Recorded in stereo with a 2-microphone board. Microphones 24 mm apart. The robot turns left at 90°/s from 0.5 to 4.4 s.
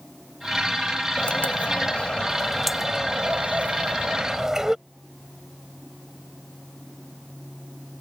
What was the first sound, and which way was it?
A bird, 130° left.